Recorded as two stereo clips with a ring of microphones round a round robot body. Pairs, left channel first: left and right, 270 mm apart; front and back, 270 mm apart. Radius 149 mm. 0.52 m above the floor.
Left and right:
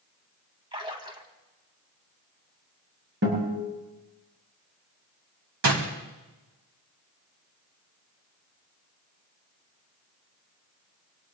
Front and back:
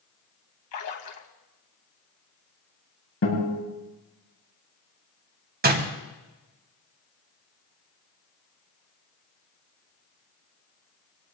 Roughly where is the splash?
Ahead.